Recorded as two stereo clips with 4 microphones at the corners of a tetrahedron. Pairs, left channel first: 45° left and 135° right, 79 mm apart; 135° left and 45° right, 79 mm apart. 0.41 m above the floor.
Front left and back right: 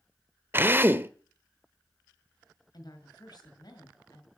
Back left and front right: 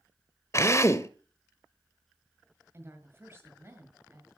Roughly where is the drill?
Behind.